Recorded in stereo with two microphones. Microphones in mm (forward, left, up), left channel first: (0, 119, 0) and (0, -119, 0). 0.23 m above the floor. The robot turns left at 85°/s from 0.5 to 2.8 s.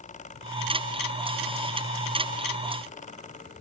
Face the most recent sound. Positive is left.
No sound to turn to.